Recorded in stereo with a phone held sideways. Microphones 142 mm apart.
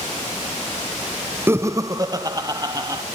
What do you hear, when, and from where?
1.5 s laughter: 20° right (ahead or behind), 0.6 m; by 3.0 s 30° right (ahead or behind), 2.5 m